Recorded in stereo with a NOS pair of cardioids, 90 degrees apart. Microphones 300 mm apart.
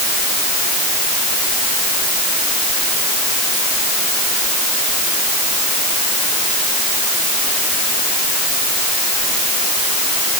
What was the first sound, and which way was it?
Only background noise.